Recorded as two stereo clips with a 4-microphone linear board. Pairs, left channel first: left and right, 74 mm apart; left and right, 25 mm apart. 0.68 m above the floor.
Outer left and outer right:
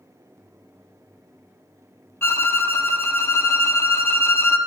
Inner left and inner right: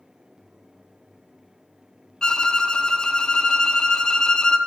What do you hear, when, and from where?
2.2 s a violin: 30° left (ahead or behind), 0.7 m